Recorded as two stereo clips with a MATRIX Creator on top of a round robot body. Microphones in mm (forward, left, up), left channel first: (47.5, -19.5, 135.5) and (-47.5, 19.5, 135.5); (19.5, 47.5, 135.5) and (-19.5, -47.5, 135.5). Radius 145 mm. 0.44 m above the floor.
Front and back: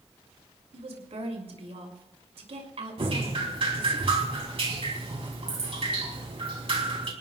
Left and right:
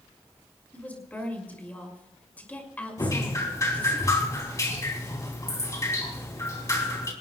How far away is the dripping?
About 3.5 m.